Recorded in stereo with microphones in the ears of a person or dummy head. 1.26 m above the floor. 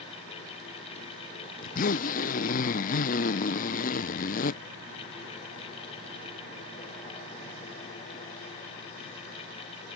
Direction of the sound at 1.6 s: 45° left (ahead or behind).